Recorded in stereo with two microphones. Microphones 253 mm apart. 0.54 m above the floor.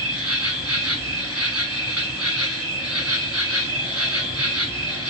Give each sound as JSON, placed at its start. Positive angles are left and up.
{"t": 0.0, "sound": "an insect", "side_deg": -75, "distance_m": 1.8}